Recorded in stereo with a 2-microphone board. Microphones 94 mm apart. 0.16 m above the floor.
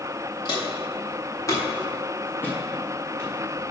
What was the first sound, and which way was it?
Footsteps, 45° left (ahead or behind).